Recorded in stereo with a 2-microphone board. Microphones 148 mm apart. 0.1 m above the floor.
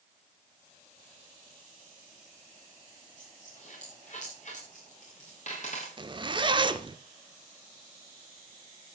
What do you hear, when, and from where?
3.2 s a dropped coin: 55° left (ahead or behind), 5 m
6.0 s a zipper: 35° right (ahead or behind), 0.7 m